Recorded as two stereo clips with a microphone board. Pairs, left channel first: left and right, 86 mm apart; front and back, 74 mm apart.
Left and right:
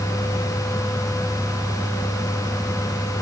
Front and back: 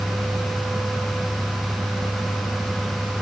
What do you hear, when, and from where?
Only background noise.